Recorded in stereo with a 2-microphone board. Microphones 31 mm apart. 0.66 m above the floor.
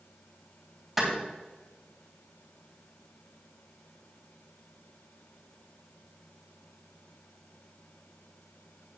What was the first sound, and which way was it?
A clap, 5° right (ahead or behind).